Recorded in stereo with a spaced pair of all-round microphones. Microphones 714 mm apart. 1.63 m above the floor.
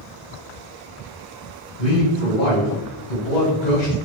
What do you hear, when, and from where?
1.8 s a man speaking: 75° left (ahead or behind), 1.1 m